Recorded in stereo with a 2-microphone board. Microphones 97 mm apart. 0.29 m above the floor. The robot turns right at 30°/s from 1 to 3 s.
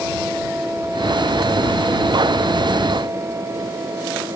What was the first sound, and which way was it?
Only background noise.